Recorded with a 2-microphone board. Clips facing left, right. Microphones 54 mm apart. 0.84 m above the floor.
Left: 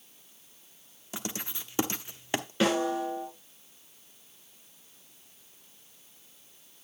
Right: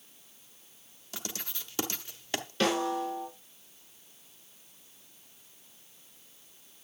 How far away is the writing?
About 0.8 m.